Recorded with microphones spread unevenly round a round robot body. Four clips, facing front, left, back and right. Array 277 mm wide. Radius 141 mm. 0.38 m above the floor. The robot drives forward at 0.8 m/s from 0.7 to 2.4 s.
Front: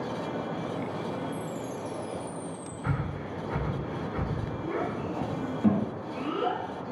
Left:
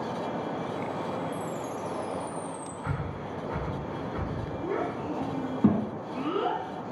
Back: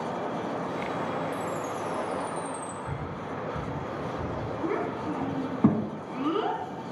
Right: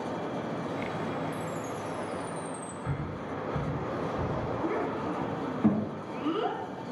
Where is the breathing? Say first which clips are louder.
Even, front 1 dB; 10° left, 1.1 m.